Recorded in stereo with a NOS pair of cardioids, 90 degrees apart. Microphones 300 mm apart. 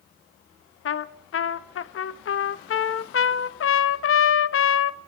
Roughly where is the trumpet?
Ahead left.